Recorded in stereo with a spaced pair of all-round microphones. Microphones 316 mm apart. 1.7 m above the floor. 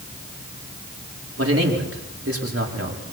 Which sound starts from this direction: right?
A man speaking, at 1.4 s.